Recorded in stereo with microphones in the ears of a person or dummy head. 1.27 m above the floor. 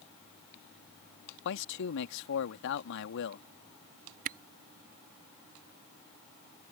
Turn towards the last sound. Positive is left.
turn(degrees=-45)  # may be behind; listen again after turning